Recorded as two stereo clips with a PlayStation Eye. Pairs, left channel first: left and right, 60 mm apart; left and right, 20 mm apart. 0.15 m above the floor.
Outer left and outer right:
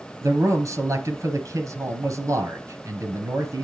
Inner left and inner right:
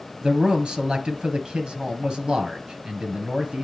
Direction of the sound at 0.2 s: 60° right (ahead or behind).